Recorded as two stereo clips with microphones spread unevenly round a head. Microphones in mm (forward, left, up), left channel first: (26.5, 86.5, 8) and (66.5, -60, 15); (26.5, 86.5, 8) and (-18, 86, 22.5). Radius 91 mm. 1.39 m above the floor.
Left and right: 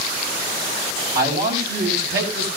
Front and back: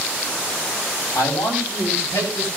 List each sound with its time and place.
1.1 s a man speaking: 60° right, 8.5 m; by 2.5 s 70° right, 8.5 m